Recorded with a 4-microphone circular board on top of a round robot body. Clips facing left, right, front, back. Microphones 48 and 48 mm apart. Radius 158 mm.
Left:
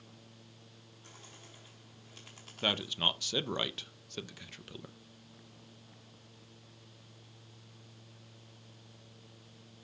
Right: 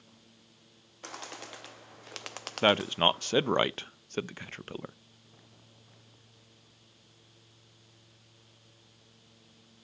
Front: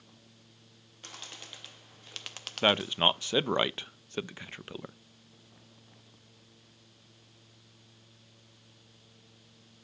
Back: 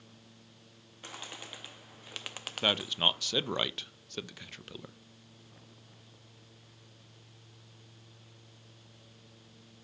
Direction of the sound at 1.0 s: 100° right.